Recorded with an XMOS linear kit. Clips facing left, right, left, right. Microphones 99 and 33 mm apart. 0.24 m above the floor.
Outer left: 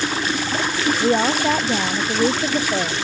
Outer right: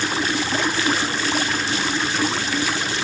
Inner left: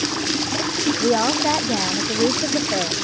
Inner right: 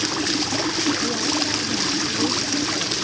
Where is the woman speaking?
85° left; by 3.0 s 80° left.